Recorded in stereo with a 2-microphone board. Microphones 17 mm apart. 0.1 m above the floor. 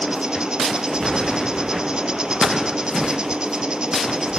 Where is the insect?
60° right (ahead or behind).